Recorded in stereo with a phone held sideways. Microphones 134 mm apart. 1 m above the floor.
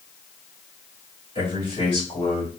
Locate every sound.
1.4 s a man speaking: 45° left (ahead or behind), 3.5 m; by 2.5 s 65° left (ahead or behind), 3.5 m